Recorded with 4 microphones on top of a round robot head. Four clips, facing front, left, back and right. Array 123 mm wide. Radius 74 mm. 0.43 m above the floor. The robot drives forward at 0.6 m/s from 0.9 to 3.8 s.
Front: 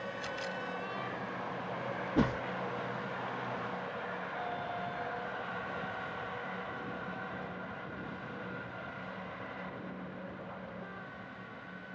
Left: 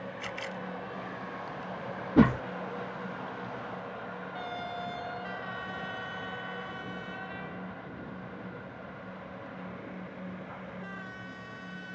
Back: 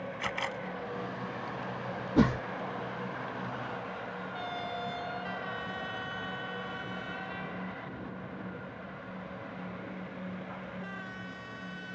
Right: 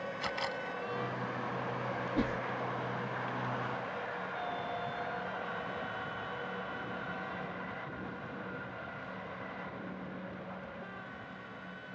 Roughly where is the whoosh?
Left.